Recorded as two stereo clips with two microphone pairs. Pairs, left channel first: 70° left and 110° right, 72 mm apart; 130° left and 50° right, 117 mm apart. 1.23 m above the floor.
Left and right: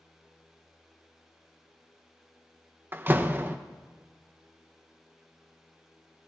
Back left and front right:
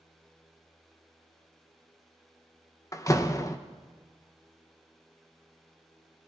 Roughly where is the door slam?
Behind.